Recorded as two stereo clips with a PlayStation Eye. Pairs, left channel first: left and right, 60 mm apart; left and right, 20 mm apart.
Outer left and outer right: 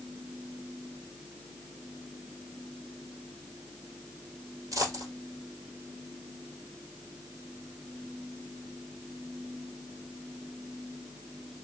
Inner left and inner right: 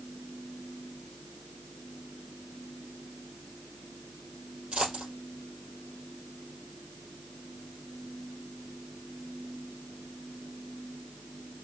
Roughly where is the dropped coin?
Right.